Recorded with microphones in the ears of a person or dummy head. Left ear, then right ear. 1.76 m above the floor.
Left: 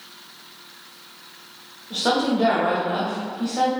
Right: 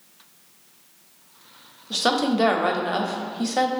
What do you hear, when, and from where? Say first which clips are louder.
1.9 s a woman speaking: even; 80° right, 0.6 m